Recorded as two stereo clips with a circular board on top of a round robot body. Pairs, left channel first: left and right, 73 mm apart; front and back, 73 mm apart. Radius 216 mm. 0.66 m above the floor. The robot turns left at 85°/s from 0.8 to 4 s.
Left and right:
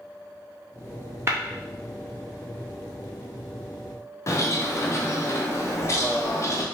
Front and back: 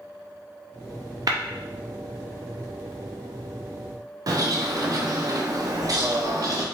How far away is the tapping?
About 0.6 m.